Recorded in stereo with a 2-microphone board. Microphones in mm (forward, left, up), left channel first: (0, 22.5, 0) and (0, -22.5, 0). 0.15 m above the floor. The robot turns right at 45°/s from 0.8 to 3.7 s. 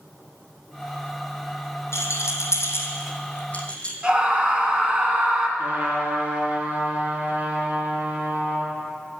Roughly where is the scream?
Right.